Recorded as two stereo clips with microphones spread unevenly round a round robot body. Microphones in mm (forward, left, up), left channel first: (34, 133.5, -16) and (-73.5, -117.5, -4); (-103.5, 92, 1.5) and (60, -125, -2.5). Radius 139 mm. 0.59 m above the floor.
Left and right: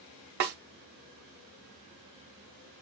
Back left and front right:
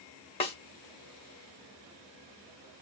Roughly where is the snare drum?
Behind.